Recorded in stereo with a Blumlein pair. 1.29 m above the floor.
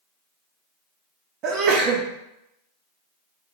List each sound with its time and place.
1.4 s a sneeze: 35° right, 0.6 m